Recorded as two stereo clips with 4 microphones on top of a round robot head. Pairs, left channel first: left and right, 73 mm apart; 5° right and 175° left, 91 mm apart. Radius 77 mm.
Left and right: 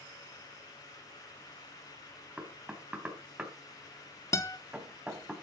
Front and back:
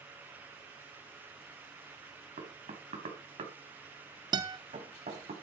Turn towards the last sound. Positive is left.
turn(degrees=135)